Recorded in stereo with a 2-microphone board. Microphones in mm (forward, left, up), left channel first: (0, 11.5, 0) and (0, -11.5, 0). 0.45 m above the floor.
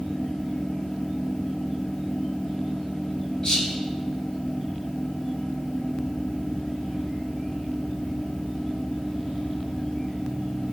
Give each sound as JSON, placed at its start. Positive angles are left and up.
{"t": 3.4, "sound": "whispering", "side_deg": 30, "distance_m": 2.5}